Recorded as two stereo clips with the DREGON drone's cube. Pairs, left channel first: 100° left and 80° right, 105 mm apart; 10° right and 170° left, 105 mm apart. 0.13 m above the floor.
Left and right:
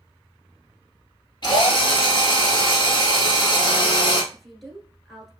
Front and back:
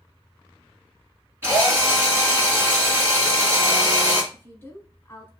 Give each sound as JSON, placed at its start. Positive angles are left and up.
{"t": 1.4, "sound": "a drill", "azimuth_deg": 115, "distance_m": 1.7}
{"t": 4.3, "sound": "a woman speaking", "azimuth_deg": 10, "distance_m": 1.2}